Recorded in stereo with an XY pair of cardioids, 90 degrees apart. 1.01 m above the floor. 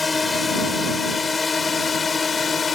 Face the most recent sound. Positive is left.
turn(degrees=45)